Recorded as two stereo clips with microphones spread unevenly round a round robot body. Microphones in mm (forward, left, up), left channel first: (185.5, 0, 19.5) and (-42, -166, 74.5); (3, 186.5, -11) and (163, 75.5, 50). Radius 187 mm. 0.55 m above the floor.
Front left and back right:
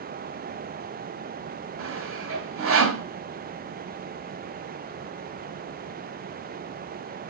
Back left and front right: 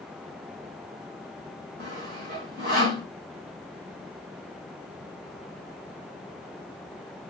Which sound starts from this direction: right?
Sawing, at 1.8 s.